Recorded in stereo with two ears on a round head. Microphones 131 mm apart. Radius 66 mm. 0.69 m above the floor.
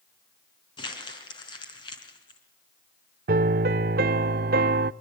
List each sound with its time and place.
0.8 s crumpling: 35° left (ahead or behind), 4 m
3.3 s a piano: 70° right (ahead or behind), 0.6 m